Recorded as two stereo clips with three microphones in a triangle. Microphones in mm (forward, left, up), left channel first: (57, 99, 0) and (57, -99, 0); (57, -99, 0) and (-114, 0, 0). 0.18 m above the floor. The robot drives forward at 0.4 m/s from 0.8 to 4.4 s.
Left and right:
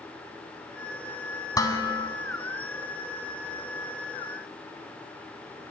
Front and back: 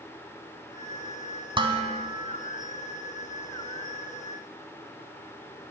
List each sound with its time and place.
1.6 s dishes clattering: 135° left, 0.8 m; by 2.1 s 150° left, 0.9 m